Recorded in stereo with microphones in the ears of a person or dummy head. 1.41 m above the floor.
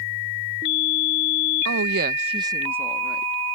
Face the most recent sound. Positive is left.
turn(degrees=0)  # may be behind; listen again after turning